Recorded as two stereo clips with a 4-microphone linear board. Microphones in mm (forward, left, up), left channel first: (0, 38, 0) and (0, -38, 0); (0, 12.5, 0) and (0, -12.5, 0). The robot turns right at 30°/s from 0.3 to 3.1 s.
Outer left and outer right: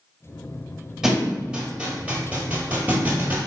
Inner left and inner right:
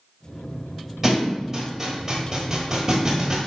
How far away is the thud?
About 1.4 m.